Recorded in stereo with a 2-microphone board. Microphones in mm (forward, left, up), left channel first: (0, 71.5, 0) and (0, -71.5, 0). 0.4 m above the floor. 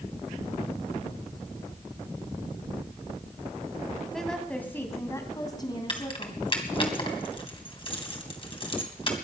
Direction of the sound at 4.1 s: Centre (ahead or behind).